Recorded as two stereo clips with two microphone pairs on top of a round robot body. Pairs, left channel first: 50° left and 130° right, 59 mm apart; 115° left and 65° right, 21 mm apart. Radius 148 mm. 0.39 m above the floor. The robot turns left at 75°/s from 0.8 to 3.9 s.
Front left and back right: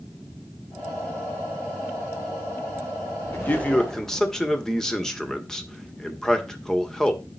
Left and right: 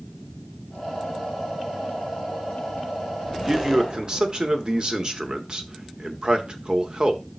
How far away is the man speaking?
About 1.8 m.